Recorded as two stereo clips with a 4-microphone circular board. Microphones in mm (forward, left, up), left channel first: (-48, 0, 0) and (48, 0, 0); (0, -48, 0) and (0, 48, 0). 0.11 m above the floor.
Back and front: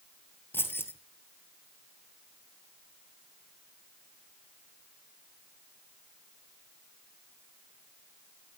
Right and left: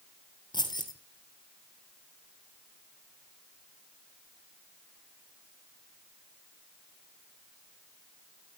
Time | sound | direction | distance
0.5 | keys jangling | 120° right | 1.9 m